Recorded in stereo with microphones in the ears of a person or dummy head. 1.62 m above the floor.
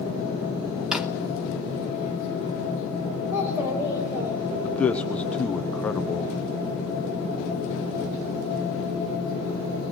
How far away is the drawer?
About 1.6 m.